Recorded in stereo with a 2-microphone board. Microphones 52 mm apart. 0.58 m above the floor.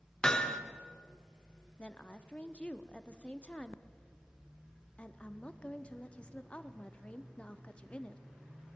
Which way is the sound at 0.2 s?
15° left (ahead or behind).